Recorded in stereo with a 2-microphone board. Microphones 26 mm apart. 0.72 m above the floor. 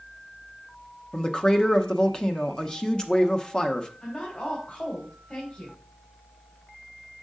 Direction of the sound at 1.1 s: 25° left (ahead or behind).